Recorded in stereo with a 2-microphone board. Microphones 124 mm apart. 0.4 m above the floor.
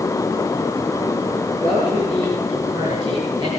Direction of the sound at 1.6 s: 40° right (ahead or behind).